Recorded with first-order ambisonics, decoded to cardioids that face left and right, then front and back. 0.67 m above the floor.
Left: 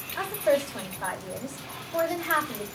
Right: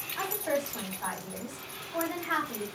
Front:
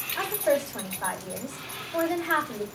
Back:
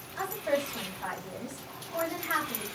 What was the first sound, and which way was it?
A woman speaking, 50° left.